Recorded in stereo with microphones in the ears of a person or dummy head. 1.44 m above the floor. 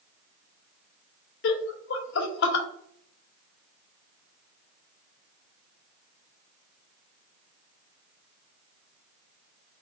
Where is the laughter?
70° left (ahead or behind), 0.7 m.